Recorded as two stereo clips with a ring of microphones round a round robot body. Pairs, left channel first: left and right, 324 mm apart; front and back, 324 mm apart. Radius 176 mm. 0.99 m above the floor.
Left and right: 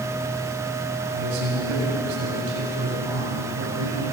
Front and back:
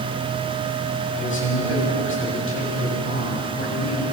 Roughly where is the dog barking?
No dog barking in this recording.